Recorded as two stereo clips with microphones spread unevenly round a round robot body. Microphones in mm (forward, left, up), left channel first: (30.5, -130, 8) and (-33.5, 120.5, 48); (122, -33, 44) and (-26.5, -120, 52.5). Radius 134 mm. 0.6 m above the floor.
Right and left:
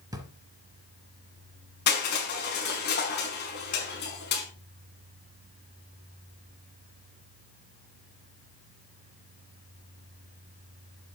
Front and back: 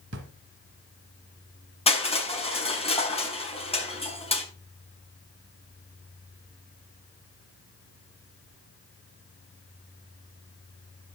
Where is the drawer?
Straight behind, 1.8 m.